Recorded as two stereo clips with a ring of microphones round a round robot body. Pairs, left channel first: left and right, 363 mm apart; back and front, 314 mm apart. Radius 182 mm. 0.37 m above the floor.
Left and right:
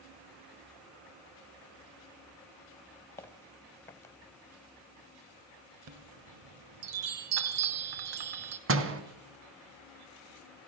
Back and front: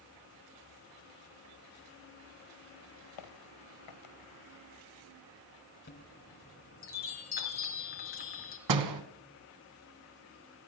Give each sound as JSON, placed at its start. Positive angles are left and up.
{"t": 3.2, "sound": "footsteps", "azimuth_deg": 175, "distance_m": 3.0}
{"t": 5.9, "sound": "a chime", "azimuth_deg": -115, "distance_m": 2.5}
{"t": 8.7, "sound": "a door slam", "azimuth_deg": -35, "distance_m": 2.5}